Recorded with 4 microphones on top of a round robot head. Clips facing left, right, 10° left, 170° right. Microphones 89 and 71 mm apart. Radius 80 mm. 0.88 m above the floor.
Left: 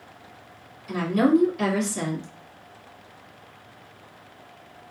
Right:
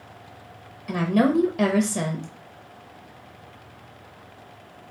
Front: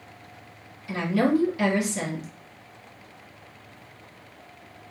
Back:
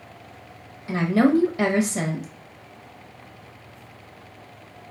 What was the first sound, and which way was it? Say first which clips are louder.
A woman speaking: left 1 dB, back 4 dB; 115° right.